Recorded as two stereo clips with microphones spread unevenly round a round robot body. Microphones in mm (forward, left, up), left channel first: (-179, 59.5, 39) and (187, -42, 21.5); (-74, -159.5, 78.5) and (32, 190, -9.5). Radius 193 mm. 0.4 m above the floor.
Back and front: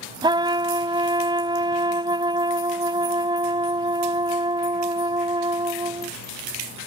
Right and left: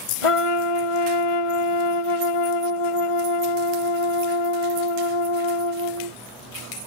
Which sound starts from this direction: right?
A trumpet, at 0.2 s.